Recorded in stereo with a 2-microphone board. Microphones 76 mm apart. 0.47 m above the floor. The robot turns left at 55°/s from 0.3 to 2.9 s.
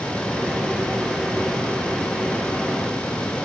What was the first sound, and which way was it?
Only background noise.